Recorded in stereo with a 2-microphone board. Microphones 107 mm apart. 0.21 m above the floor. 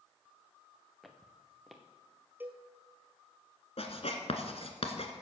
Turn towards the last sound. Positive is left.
turn(degrees=65)  # may be behind; listen again after turning